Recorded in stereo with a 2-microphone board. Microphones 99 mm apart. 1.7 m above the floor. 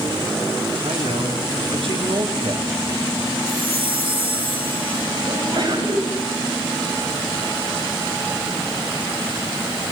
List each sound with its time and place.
0.8 s a man speaking: 80° right, 5 m; by 2.7 s 85° right, 4 m
3.5 s a chime: 65° right (ahead or behind), 5.5 m
5.3 s a sneeze: 50° right (ahead or behind), 8.5 m